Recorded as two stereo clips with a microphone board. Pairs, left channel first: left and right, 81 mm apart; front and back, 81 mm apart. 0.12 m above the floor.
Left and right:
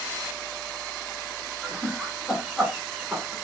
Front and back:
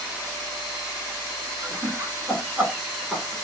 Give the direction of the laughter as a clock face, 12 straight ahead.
6 o'clock.